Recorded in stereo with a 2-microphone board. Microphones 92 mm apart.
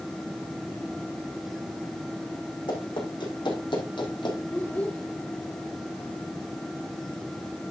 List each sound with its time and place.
2.7 s running footsteps: 55° left (ahead or behind), 6 m; by 4.4 s 60° left (ahead or behind), 3.5 m
4.5 s a child speaking: 20° left (ahead or behind), 0.8 m